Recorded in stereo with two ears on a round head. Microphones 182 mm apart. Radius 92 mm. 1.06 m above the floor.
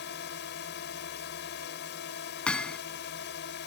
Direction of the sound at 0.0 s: 60° left (ahead or behind).